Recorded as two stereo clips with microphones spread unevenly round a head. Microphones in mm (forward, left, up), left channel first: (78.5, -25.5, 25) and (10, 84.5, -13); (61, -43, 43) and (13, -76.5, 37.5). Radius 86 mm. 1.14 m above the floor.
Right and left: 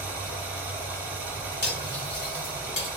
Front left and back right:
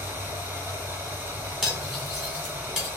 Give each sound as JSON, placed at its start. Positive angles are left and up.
{"t": 0.0, "sound": "running water", "azimuth_deg": -135, "distance_m": 0.8}
{"t": 1.6, "sound": "cutlery clinking", "azimuth_deg": -65, "distance_m": 2.5}